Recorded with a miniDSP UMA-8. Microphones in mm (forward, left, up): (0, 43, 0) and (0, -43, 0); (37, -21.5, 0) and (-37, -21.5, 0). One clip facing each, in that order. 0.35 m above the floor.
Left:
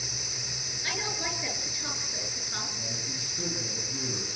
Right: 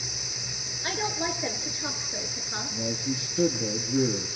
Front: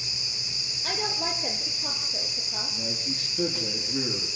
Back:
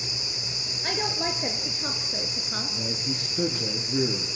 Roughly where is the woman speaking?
Behind right.